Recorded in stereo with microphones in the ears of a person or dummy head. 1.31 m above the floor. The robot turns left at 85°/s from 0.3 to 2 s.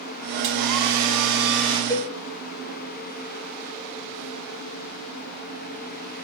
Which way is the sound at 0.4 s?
35° right.